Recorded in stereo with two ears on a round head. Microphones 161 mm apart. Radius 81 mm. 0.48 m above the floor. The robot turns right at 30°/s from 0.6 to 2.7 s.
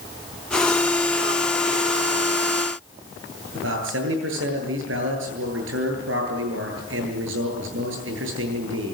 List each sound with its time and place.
3.5 s a man speaking: 80° right, 9.5 m